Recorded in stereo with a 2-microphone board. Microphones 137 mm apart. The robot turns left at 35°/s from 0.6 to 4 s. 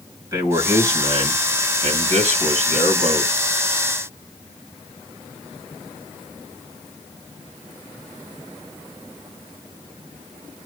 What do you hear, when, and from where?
0.3 s a man speaking: 25° right, 3 m; by 3.3 s 120° right, 3 m